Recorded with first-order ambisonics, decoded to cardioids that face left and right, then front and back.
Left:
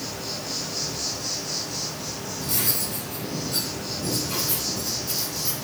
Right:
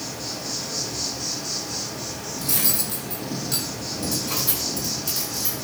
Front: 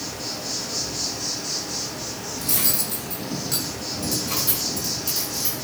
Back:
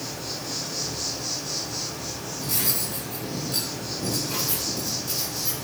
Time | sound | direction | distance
0.0 | an insect | 20° right | 4.5 m
2.4 | cutlery clinking | 35° right | 6 m